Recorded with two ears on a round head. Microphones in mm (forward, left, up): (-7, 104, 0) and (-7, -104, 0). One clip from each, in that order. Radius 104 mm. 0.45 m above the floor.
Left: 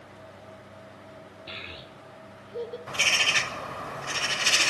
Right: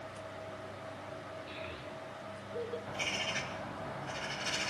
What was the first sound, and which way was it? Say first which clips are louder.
A child speaking: left 4 dB; 45° left (ahead or behind).